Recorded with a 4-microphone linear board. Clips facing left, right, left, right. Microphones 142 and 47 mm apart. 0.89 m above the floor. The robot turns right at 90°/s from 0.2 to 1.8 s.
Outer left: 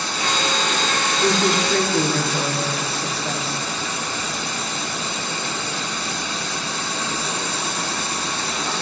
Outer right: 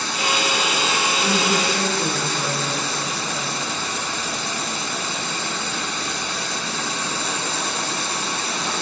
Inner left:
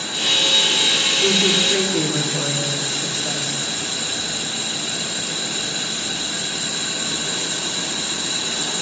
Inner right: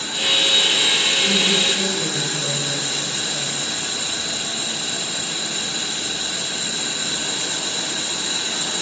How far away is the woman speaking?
About 2.5 m.